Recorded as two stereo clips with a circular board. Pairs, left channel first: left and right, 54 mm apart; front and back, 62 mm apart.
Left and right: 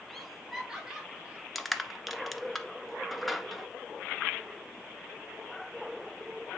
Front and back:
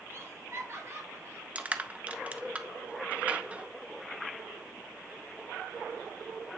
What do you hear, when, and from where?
0.1 s laughter: 175° left, 2 m; by 1.4 s 150° right, 2.5 m
1.6 s crushing: straight behind, 1.0 m